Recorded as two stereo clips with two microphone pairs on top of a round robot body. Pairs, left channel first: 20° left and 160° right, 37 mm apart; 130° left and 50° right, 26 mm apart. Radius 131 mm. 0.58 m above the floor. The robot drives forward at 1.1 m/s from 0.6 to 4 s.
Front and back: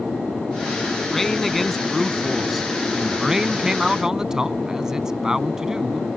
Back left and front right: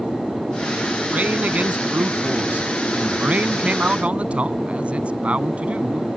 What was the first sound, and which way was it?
A man speaking, 65° right.